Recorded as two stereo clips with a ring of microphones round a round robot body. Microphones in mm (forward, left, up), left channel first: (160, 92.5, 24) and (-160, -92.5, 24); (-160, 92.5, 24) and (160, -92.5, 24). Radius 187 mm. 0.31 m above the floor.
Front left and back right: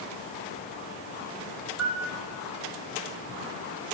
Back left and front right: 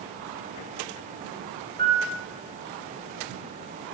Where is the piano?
95° right, 4.5 m.